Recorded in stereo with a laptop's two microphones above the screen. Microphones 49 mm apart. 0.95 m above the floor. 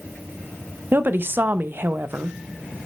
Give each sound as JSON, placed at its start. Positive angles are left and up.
{"t": 0.9, "sound": "a woman speaking", "side_deg": -45, "distance_m": 0.6}